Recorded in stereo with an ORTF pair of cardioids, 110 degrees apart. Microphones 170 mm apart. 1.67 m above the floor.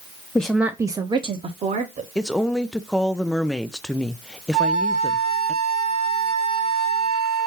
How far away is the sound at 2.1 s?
About 0.6 m.